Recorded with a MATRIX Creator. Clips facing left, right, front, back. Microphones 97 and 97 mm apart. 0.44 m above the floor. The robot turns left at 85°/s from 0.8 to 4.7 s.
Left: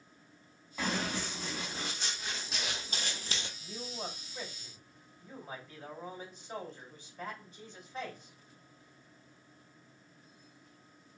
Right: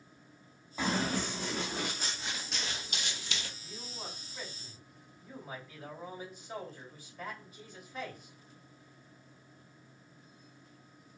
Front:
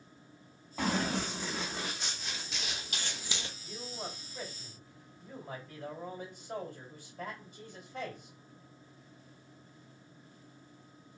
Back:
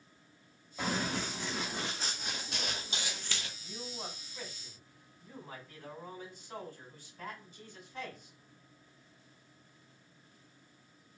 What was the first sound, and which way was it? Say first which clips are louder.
Running footsteps: right 3 dB, front 3 dB; 20° right.